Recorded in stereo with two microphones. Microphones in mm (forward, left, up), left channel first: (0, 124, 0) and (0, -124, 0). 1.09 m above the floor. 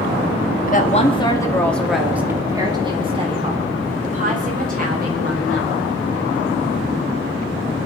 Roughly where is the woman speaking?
Left.